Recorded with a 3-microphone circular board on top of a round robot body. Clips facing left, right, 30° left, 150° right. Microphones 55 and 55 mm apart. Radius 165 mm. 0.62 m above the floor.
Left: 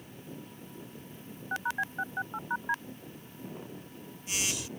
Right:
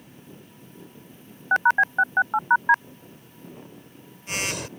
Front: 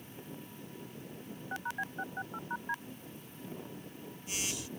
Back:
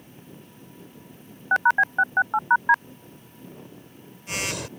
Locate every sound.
1.5 s a phone buzzing: 125° right